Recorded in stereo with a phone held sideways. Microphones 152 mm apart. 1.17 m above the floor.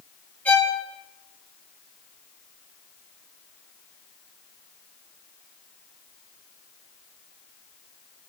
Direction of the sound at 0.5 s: 10° left (ahead or behind).